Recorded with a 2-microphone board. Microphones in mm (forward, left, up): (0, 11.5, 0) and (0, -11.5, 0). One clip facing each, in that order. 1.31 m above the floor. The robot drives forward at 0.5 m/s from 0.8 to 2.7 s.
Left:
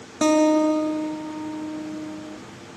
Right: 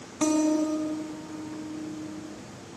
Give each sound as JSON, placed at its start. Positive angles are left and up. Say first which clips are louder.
{"t": 0.2, "sound": "a guitar", "louder": "left 6 dB", "side_deg": 60, "distance_m": 0.9}